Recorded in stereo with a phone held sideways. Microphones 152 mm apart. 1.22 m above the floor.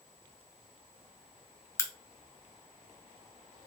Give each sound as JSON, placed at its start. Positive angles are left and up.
{"t": 1.8, "sound": "a crack", "side_deg": 20, "distance_m": 0.6}